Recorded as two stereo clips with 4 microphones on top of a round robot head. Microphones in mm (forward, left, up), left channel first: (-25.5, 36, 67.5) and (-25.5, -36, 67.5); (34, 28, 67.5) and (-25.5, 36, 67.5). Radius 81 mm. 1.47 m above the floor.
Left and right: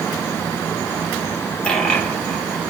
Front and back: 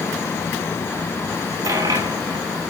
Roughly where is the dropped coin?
Behind.